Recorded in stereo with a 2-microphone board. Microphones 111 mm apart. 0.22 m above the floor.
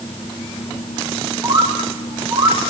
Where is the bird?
25° right (ahead or behind), 3 m.